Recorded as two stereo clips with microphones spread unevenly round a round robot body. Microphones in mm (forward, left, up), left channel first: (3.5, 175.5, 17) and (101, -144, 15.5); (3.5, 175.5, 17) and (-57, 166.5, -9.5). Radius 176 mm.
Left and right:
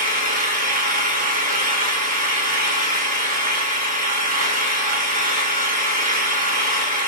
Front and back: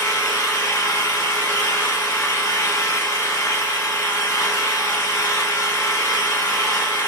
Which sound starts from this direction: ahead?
An engine running, at 0.0 s.